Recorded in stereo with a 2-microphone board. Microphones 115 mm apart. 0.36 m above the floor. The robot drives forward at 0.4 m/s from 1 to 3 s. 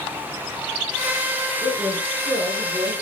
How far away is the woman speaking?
About 4.5 m.